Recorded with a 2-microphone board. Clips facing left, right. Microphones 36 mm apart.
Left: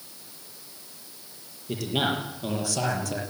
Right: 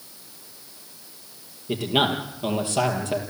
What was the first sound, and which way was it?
A man speaking, 30° right (ahead or behind).